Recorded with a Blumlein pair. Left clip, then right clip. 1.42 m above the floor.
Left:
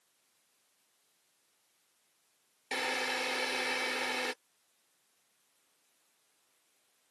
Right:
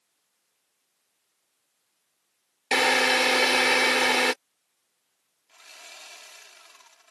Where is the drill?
55° right.